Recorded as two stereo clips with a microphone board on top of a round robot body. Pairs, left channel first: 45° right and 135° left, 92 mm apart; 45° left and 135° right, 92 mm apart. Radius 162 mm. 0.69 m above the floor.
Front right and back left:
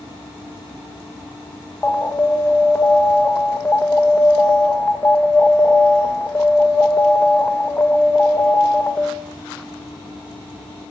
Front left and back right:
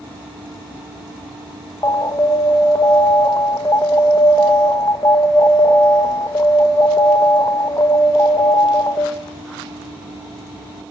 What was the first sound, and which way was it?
An alarm, 15° left.